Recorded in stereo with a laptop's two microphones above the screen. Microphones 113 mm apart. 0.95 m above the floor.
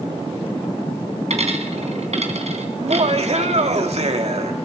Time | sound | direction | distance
1.3 | a dropped coin | 75° right (ahead or behind) | 3 m
2.8 | laughter | 70° right (ahead or behind) | 2 m